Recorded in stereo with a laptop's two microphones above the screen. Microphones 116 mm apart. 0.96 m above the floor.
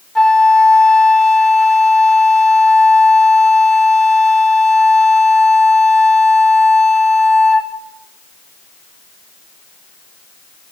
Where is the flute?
5° left (ahead or behind), 0.5 m.